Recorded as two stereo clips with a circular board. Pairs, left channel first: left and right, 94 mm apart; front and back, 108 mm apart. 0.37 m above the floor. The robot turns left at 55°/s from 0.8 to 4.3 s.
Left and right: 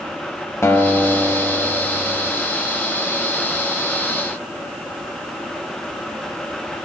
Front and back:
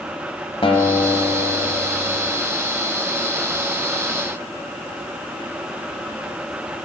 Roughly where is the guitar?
Ahead left.